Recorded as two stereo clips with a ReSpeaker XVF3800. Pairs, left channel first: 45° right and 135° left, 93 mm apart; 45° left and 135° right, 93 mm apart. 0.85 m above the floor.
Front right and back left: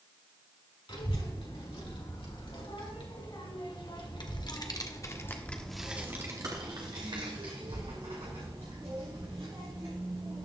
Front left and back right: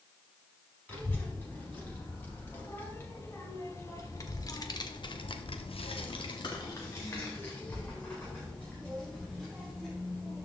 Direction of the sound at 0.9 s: 25° right.